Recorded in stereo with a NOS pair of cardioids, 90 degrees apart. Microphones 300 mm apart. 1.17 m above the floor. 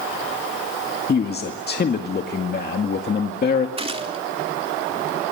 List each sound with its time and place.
1.1 s a man speaking: 35° left, 2.0 m
3.8 s a gunshot: 20° right, 3 m